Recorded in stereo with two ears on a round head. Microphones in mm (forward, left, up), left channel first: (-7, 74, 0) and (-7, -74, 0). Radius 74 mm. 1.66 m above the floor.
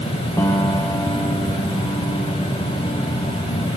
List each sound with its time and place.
0.4 s a piano: 15° left (ahead or behind), 1.4 m